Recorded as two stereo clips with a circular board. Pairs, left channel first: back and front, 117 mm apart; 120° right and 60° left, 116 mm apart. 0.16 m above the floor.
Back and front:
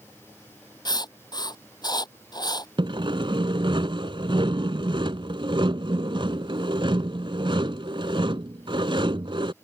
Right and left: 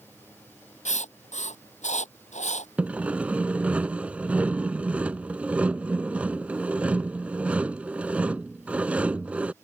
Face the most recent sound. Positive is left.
turn(degrees=-15)